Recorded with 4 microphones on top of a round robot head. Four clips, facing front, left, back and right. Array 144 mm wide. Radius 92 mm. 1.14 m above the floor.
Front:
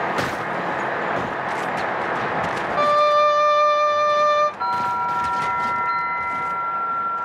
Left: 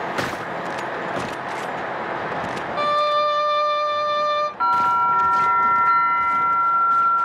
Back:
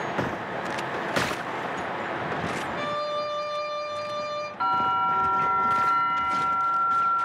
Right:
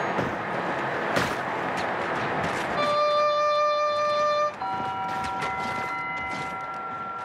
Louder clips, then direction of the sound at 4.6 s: Left 10 dB, front 2 dB; 105° left.